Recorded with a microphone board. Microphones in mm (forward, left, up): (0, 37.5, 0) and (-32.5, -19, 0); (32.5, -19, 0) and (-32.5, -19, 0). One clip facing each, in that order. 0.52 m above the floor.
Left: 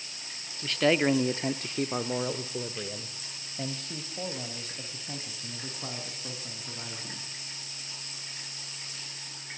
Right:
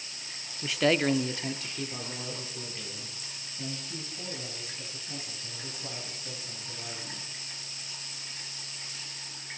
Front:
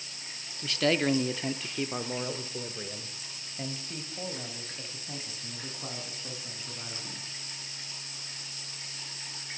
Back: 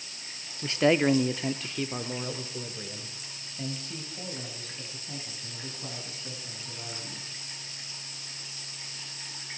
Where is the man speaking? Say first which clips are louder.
Left 1 dB, back 4 dB; straight behind, 0.8 m; by 7.2 s 65° left, 5.5 m.